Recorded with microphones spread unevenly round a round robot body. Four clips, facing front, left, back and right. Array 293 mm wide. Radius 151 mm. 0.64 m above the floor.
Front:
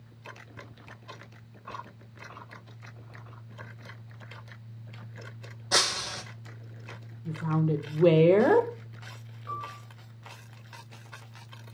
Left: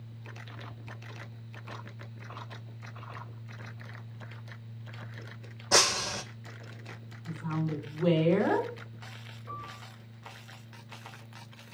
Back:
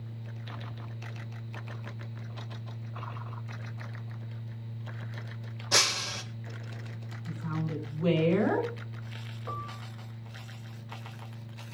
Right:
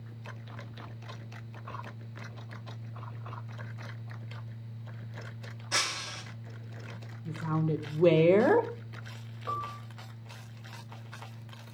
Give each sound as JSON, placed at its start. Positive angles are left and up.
{"t": 5.7, "sound": "breaking glass", "azimuth_deg": 85, "distance_m": 1.7}
{"t": 7.2, "sound": "a woman speaking", "azimuth_deg": -30, "distance_m": 3.0}
{"t": 9.5, "sound": "a piano", "azimuth_deg": -135, "distance_m": 4.5}